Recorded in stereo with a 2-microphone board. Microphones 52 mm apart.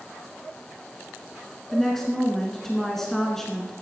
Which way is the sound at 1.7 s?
5° left (ahead or behind).